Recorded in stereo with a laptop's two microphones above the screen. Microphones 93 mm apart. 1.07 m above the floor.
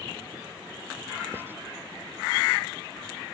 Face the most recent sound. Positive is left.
turn(degrees=-25)  # may be behind; listen again after turning